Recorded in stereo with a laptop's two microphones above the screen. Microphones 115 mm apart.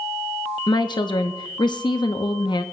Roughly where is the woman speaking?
Left.